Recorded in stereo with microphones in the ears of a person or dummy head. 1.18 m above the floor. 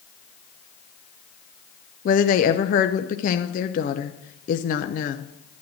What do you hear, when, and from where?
2.0 s a woman speaking: 45° left (ahead or behind), 0.7 m